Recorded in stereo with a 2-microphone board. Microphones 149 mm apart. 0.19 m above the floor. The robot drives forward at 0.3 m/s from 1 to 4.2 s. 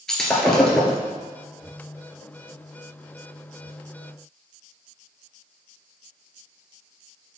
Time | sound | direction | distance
0.1 | breaking glass | 5° left (ahead or behind) | 1.8 m